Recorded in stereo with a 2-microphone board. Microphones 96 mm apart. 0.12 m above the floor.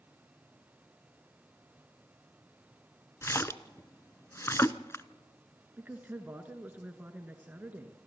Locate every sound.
3.2 s a splash: 30° left (ahead or behind), 0.6 m
5.8 s a man speaking: 15° right (ahead or behind), 1.4 m